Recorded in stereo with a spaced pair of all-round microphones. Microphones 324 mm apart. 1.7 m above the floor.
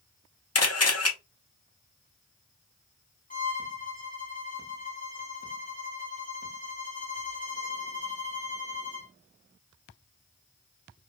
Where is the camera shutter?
50° left (ahead or behind), 0.7 m.